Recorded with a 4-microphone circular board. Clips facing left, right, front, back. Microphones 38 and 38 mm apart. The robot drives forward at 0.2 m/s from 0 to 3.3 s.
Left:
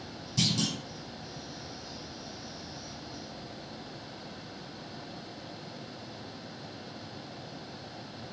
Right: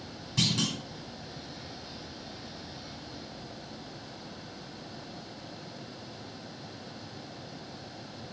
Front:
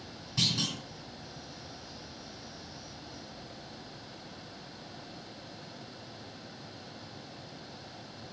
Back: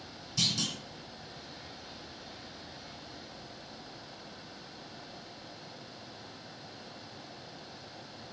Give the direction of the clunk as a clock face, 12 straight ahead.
2 o'clock.